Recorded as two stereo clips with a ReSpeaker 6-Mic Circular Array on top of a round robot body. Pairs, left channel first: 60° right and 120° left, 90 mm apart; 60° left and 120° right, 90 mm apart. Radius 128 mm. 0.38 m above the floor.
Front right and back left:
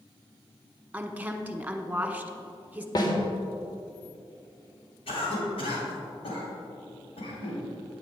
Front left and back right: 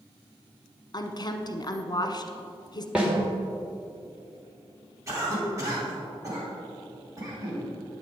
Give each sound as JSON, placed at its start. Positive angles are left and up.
{"t": 0.9, "sound": "a woman speaking", "azimuth_deg": 55, "distance_m": 1.3}
{"t": 3.0, "sound": "a snare drum", "azimuth_deg": -40, "distance_m": 2.0}
{"t": 5.1, "sound": "a cough", "azimuth_deg": -65, "distance_m": 3.5}